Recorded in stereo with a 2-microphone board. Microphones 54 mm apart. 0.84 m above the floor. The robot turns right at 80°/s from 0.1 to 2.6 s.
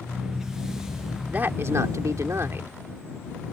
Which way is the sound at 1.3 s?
150° right.